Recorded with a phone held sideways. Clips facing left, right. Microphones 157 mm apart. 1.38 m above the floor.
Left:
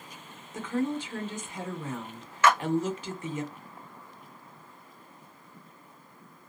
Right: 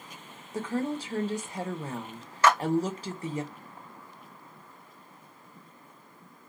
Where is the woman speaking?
40° right (ahead or behind), 0.8 m.